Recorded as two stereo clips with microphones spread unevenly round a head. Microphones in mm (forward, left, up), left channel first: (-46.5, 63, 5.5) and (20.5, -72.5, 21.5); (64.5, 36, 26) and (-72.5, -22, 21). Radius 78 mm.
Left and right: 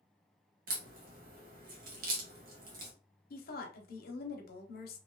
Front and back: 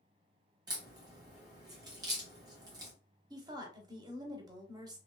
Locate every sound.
0.7 s a crack: 90° right, 1.2 m
3.3 s a woman speaking: 140° left, 0.9 m